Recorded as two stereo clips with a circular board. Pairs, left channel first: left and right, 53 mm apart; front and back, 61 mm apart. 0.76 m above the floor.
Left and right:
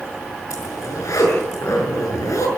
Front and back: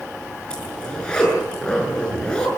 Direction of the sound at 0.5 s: 75° left.